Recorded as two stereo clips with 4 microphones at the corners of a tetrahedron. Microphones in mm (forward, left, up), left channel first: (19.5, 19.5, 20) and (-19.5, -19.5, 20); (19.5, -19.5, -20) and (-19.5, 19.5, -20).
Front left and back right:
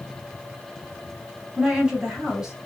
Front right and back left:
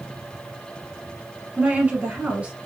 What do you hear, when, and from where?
1.6 s a woman speaking: 165° left, 1.1 m